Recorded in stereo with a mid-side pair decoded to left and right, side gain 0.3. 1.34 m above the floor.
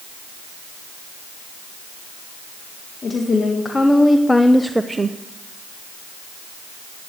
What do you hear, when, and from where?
3.0 s a woman speaking: 55° left, 1.9 m; by 5.2 s 50° right, 0.7 m